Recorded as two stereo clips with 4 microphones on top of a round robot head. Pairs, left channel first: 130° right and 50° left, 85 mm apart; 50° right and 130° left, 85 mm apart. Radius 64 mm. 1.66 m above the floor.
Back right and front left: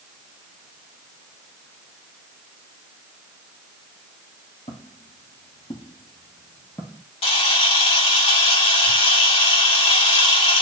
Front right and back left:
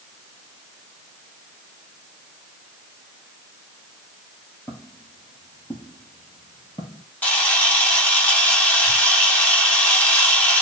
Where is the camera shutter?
125° right, 4.5 m.